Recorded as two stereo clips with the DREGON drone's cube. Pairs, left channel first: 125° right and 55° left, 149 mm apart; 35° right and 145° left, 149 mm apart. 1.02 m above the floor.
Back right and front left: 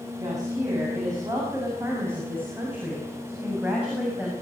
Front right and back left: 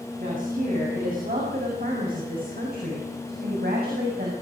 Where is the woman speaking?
120° left, 8 m; by 4.3 s 140° left, 7 m.